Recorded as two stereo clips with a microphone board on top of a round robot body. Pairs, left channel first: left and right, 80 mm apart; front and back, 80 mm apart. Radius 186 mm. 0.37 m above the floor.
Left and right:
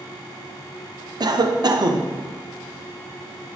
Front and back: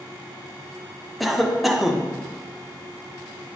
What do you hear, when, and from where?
1.2 s a cough: 90° right, 1.2 m